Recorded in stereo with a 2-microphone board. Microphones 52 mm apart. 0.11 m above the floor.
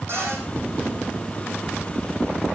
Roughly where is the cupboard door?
Right.